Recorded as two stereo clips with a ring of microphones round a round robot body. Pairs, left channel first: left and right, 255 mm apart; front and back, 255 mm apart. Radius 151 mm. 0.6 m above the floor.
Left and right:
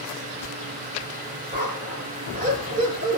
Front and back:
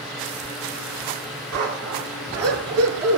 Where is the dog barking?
155° right, 5 m.